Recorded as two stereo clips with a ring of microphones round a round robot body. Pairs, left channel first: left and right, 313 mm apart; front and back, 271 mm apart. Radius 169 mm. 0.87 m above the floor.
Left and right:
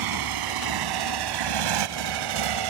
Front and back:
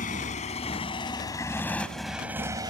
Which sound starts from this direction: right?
A motorcycle, at 0.0 s.